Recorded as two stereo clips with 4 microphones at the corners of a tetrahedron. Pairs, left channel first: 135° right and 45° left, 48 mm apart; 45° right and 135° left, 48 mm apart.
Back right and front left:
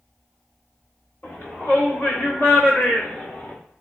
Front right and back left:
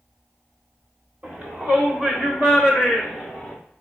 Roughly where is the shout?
Behind.